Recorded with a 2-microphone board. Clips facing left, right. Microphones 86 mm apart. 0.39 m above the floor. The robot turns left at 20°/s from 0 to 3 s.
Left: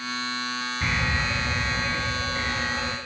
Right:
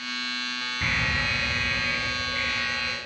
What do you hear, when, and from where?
0.8 s an alarm: straight behind, 3 m; by 3.0 s 135° left, 3 m